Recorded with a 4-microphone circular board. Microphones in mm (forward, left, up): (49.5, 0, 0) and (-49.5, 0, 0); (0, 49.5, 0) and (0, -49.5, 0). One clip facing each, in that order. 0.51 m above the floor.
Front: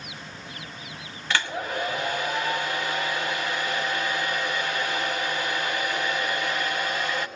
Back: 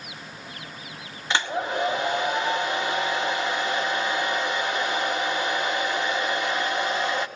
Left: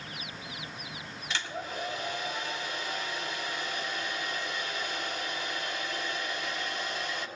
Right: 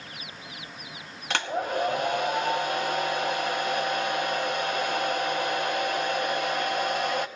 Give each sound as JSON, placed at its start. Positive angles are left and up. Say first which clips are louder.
{"t": 1.3, "sound": "a hair dryer", "louder": "back 2 dB, right 9 dB", "azimuth_deg": -110, "distance_m": 1.2}